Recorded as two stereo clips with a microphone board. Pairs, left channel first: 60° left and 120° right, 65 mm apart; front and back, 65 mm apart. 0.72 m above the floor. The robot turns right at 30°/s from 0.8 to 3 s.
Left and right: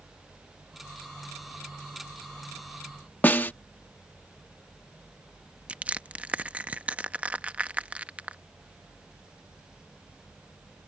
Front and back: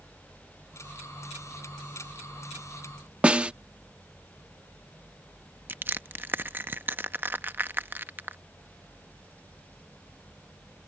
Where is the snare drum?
115° left.